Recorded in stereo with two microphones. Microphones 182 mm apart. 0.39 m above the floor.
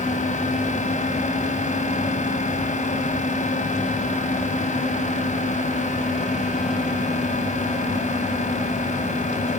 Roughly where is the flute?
No flute in this recording.